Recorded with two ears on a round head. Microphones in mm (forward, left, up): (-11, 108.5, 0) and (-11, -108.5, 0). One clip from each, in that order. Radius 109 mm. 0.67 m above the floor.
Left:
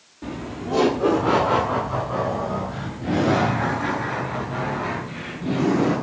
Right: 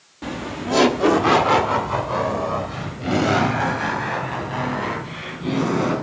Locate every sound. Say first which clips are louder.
0.2 s laughter: right 4 dB; 40° right (ahead or behind), 1.1 m; by 5.9 s 60° right (ahead or behind), 7 m